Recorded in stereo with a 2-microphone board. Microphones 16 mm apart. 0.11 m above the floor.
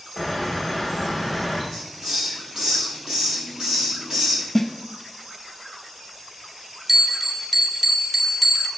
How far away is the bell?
About 0.7 m.